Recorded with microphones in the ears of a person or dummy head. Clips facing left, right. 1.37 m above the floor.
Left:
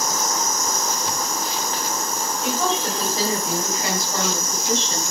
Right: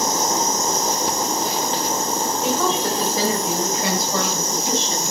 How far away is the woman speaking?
About 4 m.